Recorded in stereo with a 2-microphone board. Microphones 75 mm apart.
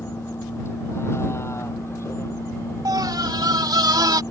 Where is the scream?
60° right (ahead or behind).